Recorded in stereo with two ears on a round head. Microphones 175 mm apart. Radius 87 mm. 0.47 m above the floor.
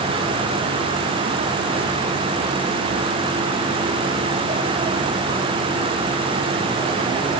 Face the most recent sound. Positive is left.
No sound to turn to.